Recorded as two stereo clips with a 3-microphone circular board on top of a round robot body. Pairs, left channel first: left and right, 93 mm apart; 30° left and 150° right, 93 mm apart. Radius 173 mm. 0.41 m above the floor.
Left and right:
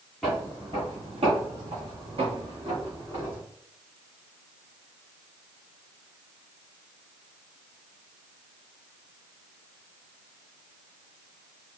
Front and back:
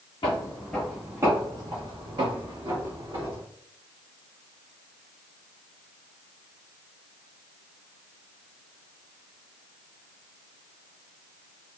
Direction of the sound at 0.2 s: Straight ahead.